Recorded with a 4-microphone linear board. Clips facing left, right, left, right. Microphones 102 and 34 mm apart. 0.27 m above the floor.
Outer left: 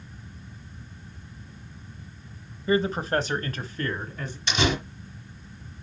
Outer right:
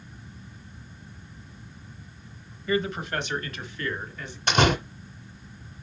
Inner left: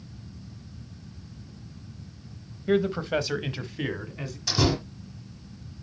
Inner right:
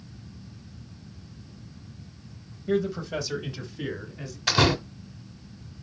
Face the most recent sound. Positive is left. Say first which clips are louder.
# outer right 4 dB, inner right 3 dB
turn(degrees=-50)  # may be behind; listen again after turning